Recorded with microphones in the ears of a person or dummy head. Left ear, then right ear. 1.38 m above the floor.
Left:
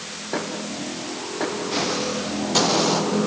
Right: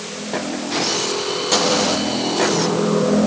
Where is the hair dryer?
I don't hear a hair dryer.